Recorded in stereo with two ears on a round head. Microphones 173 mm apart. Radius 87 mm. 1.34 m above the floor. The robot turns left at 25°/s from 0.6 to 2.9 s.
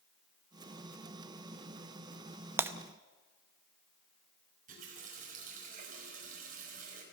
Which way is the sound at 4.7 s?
45° right (ahead or behind).